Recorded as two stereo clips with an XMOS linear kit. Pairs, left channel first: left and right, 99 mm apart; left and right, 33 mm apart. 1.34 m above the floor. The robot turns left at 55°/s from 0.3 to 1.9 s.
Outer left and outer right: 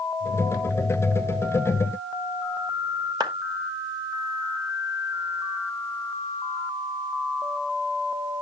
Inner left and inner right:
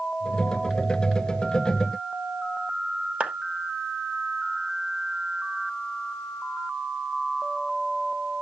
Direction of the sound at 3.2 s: 45° right (ahead or behind).